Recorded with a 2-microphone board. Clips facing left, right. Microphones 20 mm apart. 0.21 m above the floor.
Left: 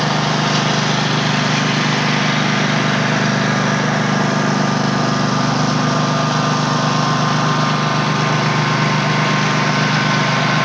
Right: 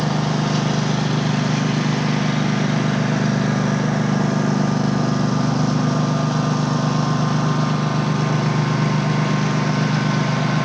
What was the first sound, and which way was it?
A lawn mower, 40° left (ahead or behind).